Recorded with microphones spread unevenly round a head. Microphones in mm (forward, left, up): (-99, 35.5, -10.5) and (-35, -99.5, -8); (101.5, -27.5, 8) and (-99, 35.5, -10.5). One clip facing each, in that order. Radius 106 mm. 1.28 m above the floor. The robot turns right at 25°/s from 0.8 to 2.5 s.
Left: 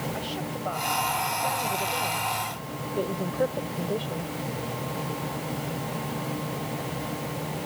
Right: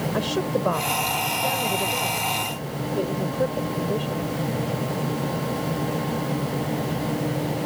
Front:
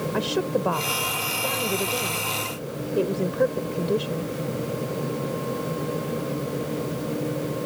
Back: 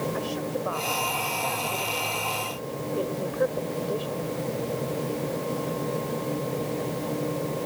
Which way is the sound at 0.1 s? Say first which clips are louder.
Right 9 dB, front 5 dB; 25° right.